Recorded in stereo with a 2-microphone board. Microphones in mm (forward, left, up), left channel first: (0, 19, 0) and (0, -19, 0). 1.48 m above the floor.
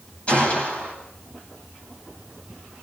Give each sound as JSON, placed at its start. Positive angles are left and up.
{"t": 0.3, "sound": "a gunshot", "side_deg": 35, "distance_m": 9.0}